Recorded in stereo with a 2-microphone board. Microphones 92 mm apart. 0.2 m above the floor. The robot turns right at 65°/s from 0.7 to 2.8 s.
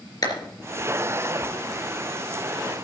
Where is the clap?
45° left (ahead or behind), 3 m.